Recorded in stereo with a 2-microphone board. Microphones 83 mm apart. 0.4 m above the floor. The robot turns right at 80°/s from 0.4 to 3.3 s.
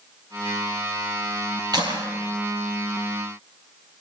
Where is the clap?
55° right (ahead or behind), 9 m; by 2.1 s 80° right, 9 m.